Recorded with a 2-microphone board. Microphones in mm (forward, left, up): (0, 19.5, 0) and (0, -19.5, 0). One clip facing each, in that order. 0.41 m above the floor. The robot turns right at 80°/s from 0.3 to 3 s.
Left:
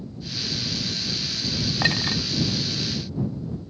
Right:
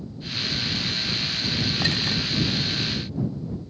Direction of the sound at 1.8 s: 30° left (ahead or behind).